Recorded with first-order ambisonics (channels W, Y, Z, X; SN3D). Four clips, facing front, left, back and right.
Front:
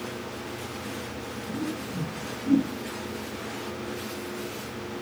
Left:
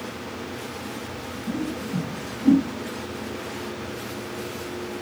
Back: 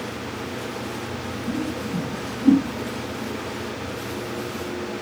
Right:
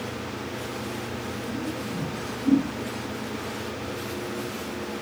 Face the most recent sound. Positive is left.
turn(degrees=145)